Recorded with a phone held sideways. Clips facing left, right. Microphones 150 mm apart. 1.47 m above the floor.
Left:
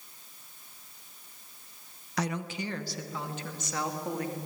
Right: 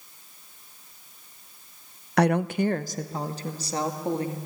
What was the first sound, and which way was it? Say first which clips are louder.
A woman speaking: right 11 dB; 60° right (ahead or behind).